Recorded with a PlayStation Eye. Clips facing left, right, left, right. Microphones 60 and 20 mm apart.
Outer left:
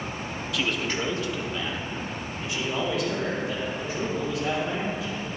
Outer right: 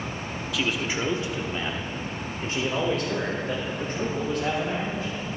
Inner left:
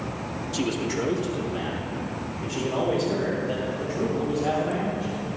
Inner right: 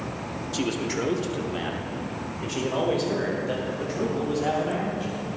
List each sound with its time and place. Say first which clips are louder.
0.5 s a man speaking: outer right 1 dB, even; centre (ahead or behind), 0.9 m; by 5.1 s 50° right (ahead or behind), 3.5 m